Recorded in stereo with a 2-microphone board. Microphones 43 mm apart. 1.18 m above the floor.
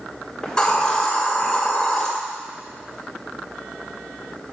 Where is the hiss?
15° left (ahead or behind), 2.5 m.